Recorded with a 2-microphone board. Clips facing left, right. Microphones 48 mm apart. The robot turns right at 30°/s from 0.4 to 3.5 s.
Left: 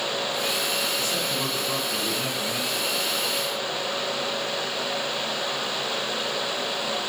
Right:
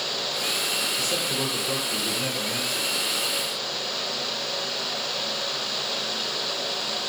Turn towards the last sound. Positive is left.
turn(degrees=-5)